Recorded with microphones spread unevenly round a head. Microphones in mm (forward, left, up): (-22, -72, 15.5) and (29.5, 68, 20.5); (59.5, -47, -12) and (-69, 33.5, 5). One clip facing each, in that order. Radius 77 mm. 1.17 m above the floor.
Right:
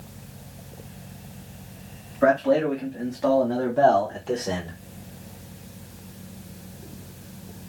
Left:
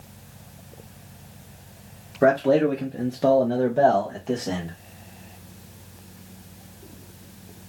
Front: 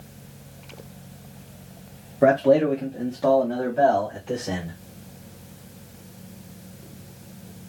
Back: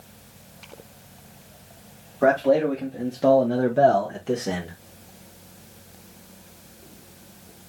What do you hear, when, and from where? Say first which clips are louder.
2.2 s a man speaking: left 1 dB, front 2 dB; 35° left, 1.2 m; by 4.8 s 165° left, 1.4 m